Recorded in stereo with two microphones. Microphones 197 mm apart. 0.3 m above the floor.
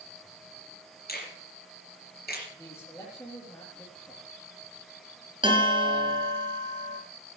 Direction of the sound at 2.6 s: 15° left (ahead or behind).